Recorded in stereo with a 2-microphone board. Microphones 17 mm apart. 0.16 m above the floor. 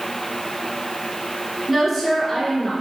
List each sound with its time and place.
1.7 s a woman speaking: centre (ahead or behind), 1.6 m; by 2.7 s 35° left (ahead or behind), 1.6 m